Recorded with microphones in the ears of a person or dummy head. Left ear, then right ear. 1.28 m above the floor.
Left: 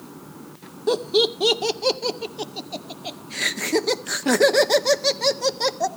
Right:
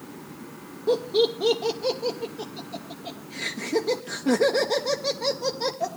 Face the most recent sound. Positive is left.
turn(degrees=35)  # may be behind; listen again after turning